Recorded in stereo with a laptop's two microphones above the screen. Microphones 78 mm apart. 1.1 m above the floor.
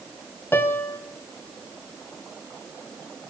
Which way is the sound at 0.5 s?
30° left (ahead or behind).